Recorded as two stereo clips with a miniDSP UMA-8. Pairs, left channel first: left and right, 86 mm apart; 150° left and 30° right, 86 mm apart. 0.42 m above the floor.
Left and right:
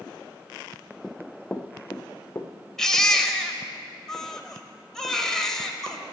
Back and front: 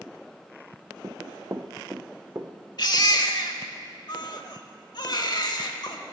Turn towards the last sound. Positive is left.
turn(degrees=175)